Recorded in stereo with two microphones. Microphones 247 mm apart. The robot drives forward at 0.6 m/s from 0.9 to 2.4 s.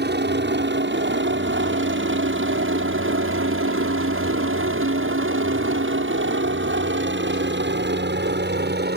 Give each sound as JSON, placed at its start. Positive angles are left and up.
{"t": 0.0, "sound": "a helicopter", "side_deg": -45}